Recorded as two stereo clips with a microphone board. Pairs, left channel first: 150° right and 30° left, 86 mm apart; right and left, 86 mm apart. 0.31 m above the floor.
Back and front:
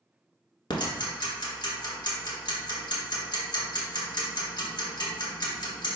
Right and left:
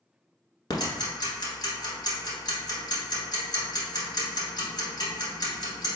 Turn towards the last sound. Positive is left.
turn(degrees=-125)